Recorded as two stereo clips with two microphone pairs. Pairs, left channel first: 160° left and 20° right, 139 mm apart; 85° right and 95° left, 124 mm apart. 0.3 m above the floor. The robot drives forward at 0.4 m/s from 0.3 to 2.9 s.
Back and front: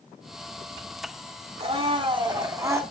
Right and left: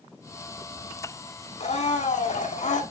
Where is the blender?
60° right, 1.1 m; by 2.8 s 85° right, 1.0 m.